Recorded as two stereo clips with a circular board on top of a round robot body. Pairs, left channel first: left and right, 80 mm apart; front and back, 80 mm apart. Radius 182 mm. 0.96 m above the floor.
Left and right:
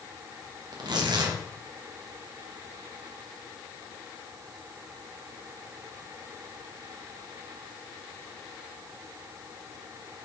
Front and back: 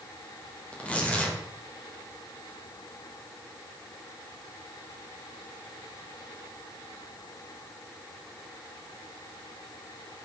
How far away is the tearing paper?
About 1.8 m.